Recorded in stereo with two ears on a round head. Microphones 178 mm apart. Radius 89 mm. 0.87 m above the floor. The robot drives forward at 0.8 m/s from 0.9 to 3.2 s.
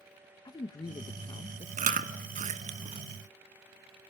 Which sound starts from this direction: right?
Chewing, at 1.8 s.